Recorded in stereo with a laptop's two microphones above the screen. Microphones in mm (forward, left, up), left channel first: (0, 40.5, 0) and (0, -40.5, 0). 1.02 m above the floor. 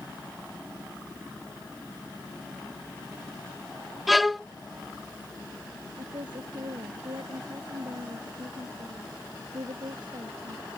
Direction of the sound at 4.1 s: Centre (ahead or behind).